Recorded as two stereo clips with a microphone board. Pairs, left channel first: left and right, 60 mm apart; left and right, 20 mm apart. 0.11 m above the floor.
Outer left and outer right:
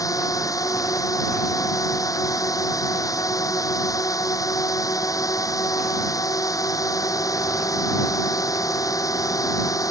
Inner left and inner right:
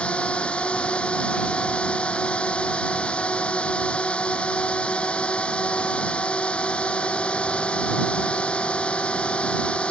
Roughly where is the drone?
Left.